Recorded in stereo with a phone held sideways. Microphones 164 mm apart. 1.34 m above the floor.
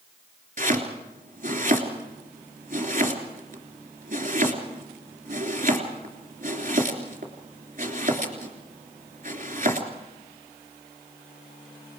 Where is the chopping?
50° right (ahead or behind), 3 m.